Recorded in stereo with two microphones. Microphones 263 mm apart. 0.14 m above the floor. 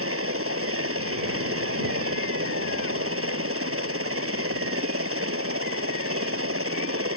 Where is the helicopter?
55° right (ahead or behind).